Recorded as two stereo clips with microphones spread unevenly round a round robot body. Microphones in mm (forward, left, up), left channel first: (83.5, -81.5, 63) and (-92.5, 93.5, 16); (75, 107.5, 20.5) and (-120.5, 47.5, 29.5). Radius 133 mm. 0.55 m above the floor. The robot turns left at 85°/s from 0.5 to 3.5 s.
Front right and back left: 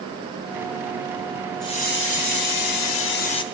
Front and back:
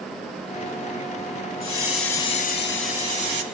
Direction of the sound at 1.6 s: 35° left.